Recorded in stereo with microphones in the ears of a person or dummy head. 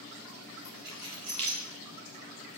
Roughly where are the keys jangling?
Right.